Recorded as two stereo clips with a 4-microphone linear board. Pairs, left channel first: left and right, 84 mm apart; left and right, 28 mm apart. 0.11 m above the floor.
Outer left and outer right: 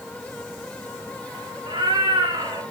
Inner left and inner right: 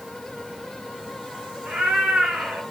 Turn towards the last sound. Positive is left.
turn(degrees=-85)